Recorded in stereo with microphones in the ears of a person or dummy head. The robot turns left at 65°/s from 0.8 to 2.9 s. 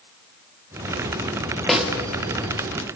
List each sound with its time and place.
1.7 s a snare drum: centre (ahead or behind), 2 m; by 1.9 s 10° right (ahead or behind), 2 m